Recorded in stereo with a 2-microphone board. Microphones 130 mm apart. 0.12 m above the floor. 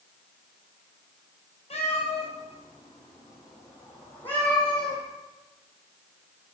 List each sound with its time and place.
1.7 s a cat meowing: 55° left (ahead or behind), 2 m; by 5.0 s 5° left (ahead or behind), 2.5 m